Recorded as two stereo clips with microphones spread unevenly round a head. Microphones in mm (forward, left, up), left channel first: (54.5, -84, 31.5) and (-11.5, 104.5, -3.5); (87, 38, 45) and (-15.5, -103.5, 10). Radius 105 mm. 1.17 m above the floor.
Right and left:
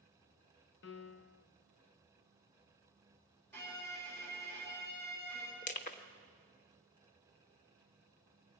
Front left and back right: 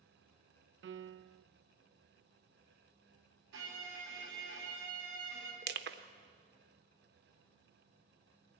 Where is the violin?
150° right, 5 m.